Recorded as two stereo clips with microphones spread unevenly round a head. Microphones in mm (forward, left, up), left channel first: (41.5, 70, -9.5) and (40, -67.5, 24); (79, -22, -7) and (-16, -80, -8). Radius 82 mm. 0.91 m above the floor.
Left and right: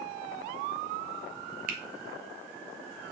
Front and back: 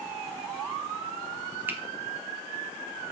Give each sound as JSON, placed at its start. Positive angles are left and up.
{"t": 1.7, "sound": "a finger snap", "azimuth_deg": -80, "distance_m": 1.0}